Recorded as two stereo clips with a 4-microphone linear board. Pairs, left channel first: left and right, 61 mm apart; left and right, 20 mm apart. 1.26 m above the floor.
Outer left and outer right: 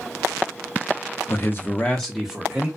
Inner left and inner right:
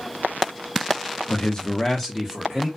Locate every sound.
1.3 s a man speaking: 45° left (ahead or behind), 0.6 m; by 2.7 s 15° right (ahead or behind), 0.7 m